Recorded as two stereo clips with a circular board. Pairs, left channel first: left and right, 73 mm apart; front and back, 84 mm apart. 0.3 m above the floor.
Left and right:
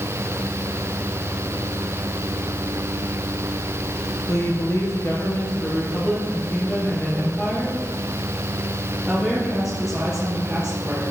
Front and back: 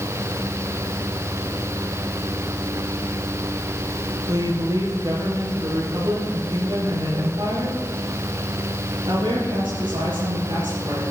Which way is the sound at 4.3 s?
130° left.